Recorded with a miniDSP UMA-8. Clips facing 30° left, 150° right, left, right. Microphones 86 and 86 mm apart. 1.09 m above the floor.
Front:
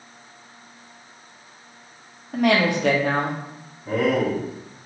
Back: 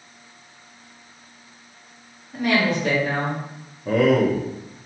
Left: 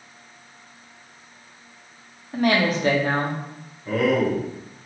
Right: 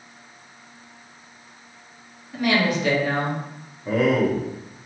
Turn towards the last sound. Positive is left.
turn(degrees=-155)